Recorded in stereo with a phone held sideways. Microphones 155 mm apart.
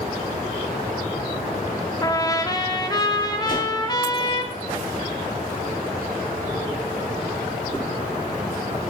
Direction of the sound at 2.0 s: 25° left (ahead or behind).